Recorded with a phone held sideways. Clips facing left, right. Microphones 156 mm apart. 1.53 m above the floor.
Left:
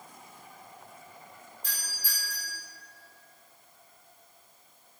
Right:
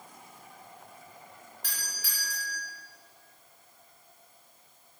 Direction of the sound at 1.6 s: 80° right.